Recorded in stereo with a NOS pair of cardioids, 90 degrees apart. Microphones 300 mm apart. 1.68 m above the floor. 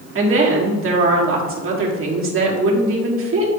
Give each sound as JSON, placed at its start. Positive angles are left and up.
{"t": 0.1, "sound": "a woman speaking", "azimuth_deg": -45, "distance_m": 2.0}